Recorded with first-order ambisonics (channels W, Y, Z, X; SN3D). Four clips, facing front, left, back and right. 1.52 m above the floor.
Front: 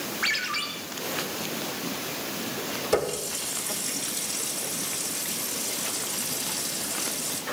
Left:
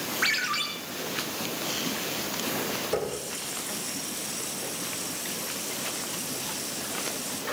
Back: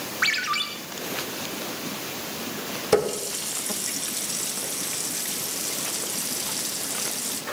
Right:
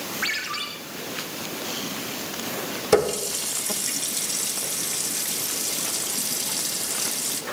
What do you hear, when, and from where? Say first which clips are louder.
0.2 s a ringtone: left 2 dB, back 4 dB; 170° left, 2.5 m
2.9 s a running tap: right 9 dB, back 4 dB; 115° right, 1.1 m